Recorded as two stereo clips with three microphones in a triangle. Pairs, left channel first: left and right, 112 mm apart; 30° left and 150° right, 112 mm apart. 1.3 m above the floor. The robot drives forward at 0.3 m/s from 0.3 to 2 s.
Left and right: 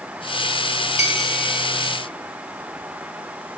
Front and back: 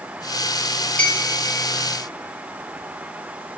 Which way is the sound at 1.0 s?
110° left.